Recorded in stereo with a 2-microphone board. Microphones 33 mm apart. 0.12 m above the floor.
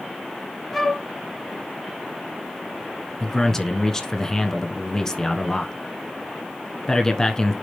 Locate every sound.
0.7 s a flute: 10° left (ahead or behind), 1.7 m
3.2 s a man speaking: 20° left (ahead or behind), 1.1 m